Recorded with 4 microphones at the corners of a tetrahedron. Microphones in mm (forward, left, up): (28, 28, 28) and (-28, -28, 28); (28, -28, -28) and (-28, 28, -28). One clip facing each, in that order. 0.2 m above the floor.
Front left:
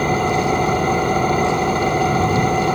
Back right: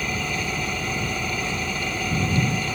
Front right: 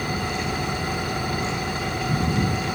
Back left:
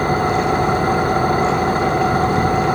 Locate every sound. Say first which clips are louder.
0.0 s an engine running: front left 11 dB, back left 10 dB; 90° left